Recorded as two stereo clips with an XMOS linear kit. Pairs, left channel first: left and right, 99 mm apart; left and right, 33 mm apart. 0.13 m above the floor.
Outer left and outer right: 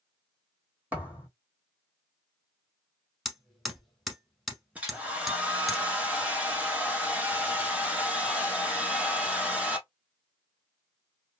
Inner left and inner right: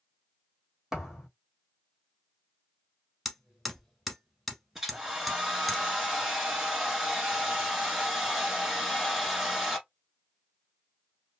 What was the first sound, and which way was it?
A thud, 15° right (ahead or behind).